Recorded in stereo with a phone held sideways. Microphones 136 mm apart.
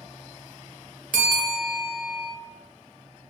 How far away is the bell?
About 0.7 m.